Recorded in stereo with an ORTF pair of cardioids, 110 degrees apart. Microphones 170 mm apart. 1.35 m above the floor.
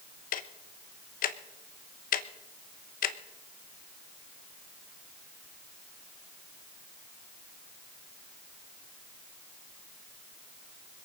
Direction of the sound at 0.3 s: 55° left.